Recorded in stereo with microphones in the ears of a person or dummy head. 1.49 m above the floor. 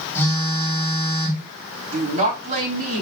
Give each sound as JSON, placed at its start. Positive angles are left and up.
{"t": 0.1, "sound": "a phone buzzing", "side_deg": 15, "distance_m": 2.5}
{"t": 1.9, "sound": "a woman speaking", "side_deg": -40, "distance_m": 3.5}